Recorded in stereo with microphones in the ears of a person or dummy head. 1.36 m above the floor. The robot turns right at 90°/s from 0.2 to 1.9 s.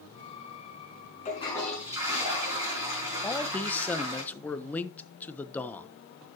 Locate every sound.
1.2 s a toilet flushing: 130° left, 5.5 m; by 4.2 s 170° right, 5.5 m
3.2 s a man speaking: 5° left (ahead or behind), 1.0 m